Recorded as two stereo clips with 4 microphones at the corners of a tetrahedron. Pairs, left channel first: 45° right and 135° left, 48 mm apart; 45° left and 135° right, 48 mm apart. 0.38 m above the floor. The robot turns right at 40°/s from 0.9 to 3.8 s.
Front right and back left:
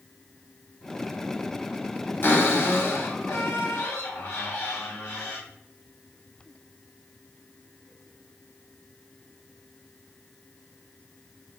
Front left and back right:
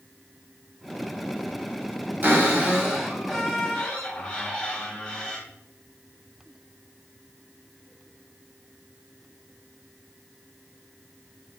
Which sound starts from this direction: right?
A cupboard door, at 2.2 s.